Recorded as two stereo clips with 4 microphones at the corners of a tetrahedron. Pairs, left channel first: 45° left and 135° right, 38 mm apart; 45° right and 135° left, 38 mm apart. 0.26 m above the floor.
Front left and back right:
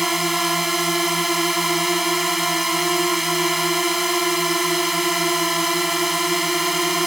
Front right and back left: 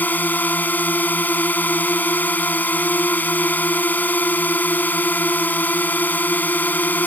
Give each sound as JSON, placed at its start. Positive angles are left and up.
{"t": 0.0, "sound": "a drone", "azimuth_deg": -50}